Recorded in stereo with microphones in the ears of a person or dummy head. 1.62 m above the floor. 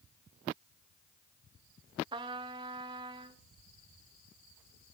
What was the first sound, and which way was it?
A trumpet, 30° right (ahead or behind).